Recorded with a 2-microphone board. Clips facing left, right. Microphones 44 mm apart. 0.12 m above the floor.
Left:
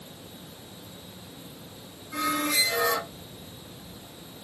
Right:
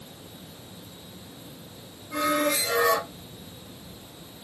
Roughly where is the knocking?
No knocking in this recording.